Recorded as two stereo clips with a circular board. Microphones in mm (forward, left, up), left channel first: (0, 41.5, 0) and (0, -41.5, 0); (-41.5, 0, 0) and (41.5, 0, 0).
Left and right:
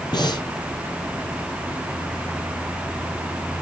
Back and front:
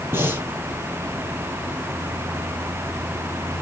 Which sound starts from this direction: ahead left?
Breathing, at 0.1 s.